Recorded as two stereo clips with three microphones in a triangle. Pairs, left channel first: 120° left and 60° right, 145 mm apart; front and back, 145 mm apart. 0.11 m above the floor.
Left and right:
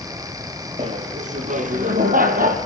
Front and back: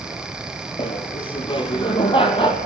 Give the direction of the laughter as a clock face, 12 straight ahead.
1 o'clock.